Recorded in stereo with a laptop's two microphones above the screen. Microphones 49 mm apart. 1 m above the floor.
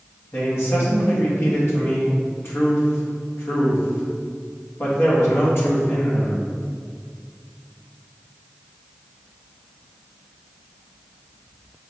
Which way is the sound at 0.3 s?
60° left (ahead or behind).